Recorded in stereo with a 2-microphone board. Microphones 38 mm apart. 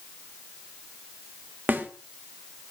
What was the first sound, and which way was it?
A snare drum, 60° right (ahead or behind).